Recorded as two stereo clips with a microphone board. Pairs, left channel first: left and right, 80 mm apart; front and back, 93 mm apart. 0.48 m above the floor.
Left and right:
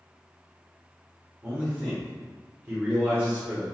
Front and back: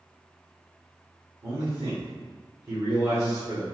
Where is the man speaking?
150° right, 0.9 m.